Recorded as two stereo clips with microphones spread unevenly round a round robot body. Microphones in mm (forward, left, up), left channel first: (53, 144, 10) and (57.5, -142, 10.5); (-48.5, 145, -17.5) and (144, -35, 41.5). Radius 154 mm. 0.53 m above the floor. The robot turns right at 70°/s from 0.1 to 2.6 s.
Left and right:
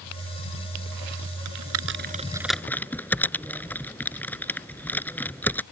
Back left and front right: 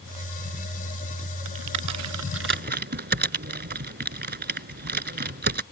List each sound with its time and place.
1.4 s typing on a keyboard: 75° right; by 5.6 s 5° left